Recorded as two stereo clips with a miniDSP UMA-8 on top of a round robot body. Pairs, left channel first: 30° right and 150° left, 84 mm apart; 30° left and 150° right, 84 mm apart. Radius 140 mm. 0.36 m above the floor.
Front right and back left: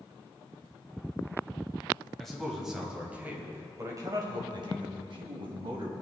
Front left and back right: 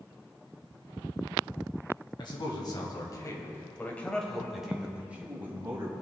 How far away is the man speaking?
About 3 m.